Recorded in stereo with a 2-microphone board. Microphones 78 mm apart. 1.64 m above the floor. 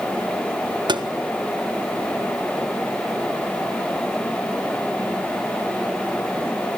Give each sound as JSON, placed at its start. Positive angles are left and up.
{"t": 0.9, "sound": "tapping", "side_deg": -75, "distance_m": 1.6}